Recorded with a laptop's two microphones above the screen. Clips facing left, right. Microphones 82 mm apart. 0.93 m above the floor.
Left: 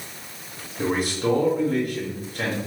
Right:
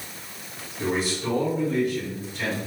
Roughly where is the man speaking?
Left.